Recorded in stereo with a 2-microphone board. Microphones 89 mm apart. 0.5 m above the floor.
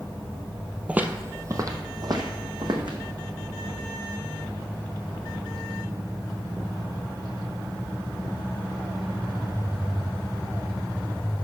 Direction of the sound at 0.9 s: 15° right (ahead or behind).